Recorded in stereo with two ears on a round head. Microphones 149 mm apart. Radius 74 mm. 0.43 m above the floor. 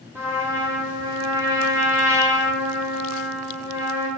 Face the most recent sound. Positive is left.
turn(degrees=-15)  # may be behind; listen again after turning